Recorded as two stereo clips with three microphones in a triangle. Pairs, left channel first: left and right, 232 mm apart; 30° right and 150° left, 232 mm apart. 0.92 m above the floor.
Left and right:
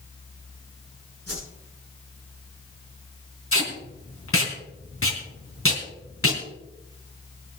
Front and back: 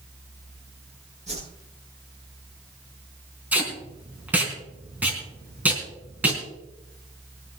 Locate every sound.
1.3 s a whoosh: 90° left, 9 m
3.5 s tape being pulled: 65° left, 4 m